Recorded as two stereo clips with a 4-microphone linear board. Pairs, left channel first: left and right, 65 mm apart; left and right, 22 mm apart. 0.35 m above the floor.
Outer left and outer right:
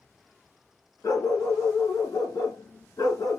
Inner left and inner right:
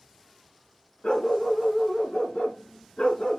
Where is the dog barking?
70° left (ahead or behind), 1.7 m.